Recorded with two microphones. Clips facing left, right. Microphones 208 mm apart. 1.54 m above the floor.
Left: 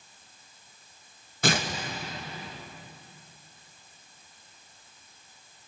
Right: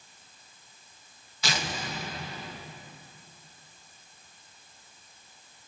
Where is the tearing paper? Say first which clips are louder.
Left 7 dB; 55° left (ahead or behind), 2.5 m.